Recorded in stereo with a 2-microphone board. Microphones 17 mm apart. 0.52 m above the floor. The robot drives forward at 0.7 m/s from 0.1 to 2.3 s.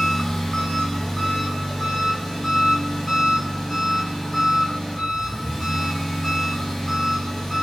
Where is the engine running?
30° left (ahead or behind), 3 m; by 7.6 s 20° left (ahead or behind), 4.5 m.